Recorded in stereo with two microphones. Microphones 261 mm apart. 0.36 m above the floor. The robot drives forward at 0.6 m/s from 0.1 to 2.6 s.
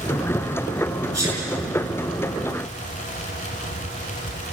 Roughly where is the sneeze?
Right.